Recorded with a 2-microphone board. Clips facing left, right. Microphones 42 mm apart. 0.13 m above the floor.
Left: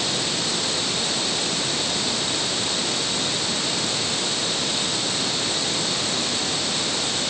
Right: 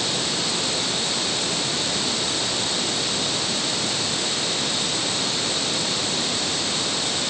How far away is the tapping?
No tapping in this recording.